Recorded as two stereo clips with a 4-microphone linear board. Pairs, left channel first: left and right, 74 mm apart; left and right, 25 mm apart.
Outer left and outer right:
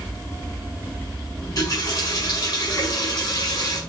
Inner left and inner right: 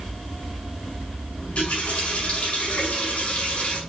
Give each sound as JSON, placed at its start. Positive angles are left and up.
{"t": 1.4, "sound": "a running tap", "side_deg": 50, "distance_m": 5.0}